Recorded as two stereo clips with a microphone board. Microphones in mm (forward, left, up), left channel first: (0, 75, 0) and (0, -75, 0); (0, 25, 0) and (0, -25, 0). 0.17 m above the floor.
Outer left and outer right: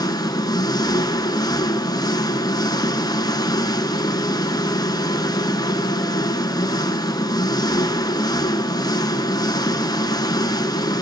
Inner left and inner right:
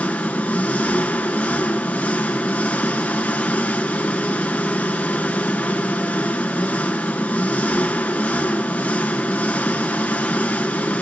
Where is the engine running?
25° left (ahead or behind), 0.8 m.